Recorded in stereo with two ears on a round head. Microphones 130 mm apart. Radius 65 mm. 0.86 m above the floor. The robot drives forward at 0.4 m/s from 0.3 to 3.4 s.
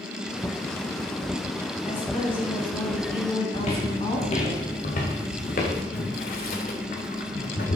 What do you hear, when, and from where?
1.9 s a woman speaking: 40° left (ahead or behind), 8 m
3.5 s footsteps: 45° left (ahead or behind), 4 m; by 5.8 s 60° left (ahead or behind), 5 m
5.9 s boiling: 70° left (ahead or behind), 3 m